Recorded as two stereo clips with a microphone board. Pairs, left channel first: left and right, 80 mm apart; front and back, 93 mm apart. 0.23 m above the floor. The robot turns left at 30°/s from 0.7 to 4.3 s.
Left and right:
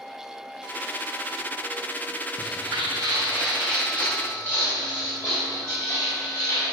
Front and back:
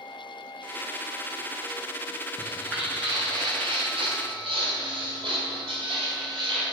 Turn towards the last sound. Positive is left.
turn(degrees=145)